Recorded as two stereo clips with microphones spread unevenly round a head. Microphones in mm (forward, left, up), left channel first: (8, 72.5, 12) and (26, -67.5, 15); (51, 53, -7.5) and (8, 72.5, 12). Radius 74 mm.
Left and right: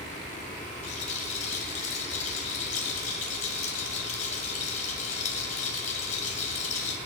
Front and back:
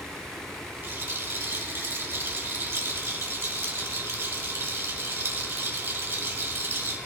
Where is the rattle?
140° left, 2.5 m.